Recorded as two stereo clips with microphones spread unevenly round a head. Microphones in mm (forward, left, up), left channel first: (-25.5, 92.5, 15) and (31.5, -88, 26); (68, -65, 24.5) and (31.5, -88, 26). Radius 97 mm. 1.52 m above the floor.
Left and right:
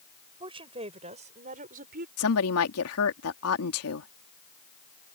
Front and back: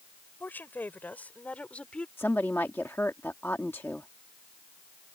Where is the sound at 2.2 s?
105° left.